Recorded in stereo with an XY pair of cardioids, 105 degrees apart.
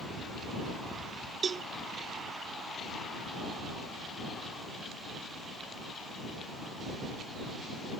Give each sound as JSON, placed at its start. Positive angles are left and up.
{"t": 1.4, "sound": "a cowbell", "azimuth_deg": -45}